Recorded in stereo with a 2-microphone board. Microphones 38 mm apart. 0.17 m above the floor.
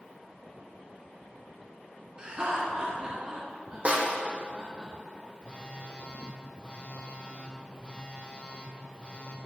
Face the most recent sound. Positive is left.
turn(degrees=35)  # may be behind; listen again after turning